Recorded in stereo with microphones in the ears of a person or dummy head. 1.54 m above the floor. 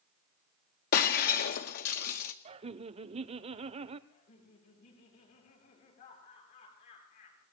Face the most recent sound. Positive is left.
turn(degrees=55)  # may be behind; listen again after turning